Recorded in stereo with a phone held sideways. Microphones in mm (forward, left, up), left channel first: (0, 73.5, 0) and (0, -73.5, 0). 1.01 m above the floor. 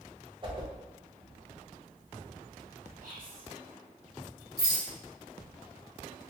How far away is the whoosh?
About 0.7 m.